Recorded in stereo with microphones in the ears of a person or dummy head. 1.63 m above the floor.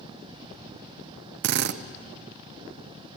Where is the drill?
60° right (ahead or behind), 0.9 m.